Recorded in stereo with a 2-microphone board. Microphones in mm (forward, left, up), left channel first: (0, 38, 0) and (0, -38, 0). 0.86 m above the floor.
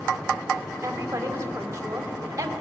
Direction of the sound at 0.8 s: 40° right (ahead or behind).